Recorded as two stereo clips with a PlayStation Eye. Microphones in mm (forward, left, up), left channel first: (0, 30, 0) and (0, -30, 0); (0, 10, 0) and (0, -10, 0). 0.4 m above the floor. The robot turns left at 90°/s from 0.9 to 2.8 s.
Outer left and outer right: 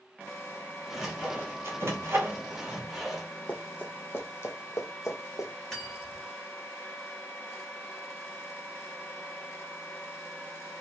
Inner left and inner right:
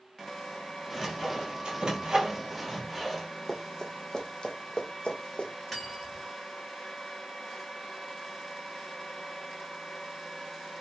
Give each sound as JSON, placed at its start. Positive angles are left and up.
{"t": 0.9, "sound": "sawing", "side_deg": 0, "distance_m": 0.9}
{"t": 3.5, "sound": "running footsteps", "side_deg": 25, "distance_m": 1.2}
{"t": 5.7, "sound": "cutlery clinking", "side_deg": 5, "distance_m": 1.4}